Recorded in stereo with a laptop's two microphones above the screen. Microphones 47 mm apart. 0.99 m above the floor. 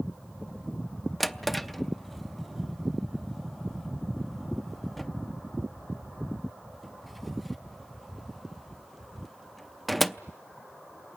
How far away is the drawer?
About 0.6 m.